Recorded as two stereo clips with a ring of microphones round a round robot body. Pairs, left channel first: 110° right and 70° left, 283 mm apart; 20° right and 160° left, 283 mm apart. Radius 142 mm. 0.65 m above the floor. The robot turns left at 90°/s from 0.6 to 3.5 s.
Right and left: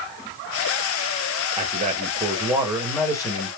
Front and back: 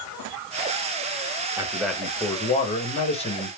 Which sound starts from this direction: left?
A man speaking, at 1.6 s.